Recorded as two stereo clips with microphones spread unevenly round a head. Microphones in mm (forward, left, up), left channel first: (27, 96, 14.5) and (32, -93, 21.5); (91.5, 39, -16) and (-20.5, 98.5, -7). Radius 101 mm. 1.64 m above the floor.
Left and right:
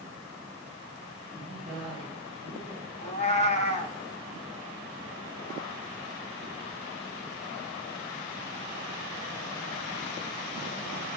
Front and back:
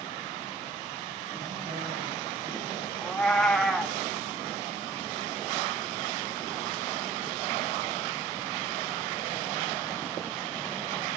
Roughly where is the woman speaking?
Behind.